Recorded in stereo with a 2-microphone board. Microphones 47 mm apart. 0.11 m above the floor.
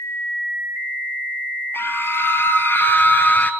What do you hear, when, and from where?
1.7 s a scream: 45° left (ahead or behind), 2.5 m; by 3.5 s 35° left (ahead or behind), 1.8 m